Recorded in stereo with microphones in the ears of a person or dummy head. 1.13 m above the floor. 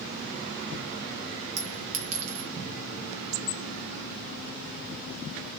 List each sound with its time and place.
1.6 s a clink: 80° right, 1.1 m